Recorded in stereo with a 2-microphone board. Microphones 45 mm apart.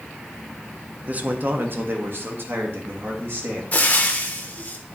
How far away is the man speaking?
About 0.7 m.